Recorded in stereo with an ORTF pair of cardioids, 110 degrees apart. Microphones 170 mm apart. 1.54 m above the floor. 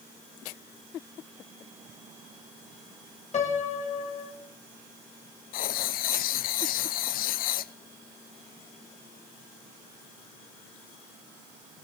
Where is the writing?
65° left, 0.5 m.